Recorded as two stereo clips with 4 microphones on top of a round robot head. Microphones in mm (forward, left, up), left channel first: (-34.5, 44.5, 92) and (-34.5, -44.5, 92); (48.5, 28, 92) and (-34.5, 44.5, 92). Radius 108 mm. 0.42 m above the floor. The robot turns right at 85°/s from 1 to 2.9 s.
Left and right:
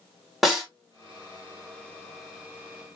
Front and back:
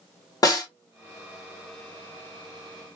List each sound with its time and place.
0.4 s a snare drum: 5° right, 1.6 m